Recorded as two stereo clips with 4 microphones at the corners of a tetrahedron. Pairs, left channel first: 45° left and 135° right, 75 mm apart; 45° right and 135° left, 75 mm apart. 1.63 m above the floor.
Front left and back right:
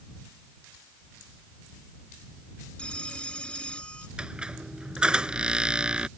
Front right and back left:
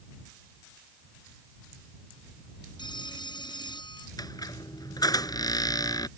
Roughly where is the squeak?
Ahead right.